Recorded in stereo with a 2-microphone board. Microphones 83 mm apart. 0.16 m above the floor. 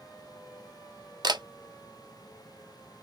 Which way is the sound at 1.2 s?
65° right (ahead or behind).